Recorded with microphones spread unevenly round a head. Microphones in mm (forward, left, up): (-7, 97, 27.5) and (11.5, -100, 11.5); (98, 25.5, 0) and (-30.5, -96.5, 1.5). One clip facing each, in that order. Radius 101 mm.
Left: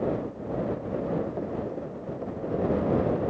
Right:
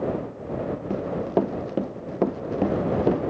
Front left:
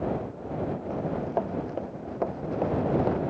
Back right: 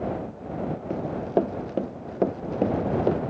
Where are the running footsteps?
85° right; by 3.2 s 80° right.